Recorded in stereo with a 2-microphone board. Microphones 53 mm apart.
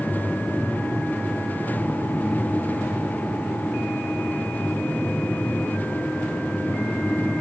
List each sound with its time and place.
Only background noise.